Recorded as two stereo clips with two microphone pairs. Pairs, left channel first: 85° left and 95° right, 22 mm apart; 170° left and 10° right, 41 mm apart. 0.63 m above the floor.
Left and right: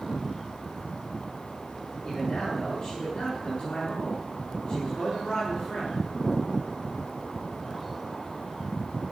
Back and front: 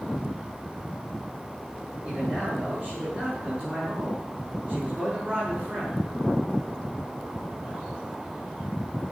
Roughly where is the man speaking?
Ahead left.